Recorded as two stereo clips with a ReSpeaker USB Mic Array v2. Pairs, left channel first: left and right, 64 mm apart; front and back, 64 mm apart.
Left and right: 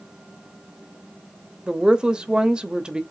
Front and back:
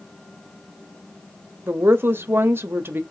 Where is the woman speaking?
155° right, 0.8 m.